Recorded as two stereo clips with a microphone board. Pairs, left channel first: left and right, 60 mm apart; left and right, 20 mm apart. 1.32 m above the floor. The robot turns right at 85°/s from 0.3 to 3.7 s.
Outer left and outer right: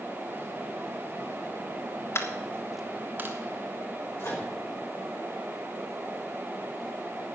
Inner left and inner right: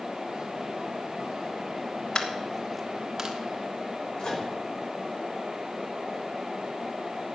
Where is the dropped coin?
50° left (ahead or behind), 1.5 m; by 3.4 s 45° right (ahead or behind), 1.5 m.